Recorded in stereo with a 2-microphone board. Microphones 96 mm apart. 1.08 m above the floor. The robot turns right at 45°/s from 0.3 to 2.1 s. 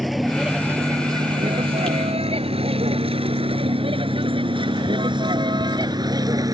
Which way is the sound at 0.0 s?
Centre (ahead or behind).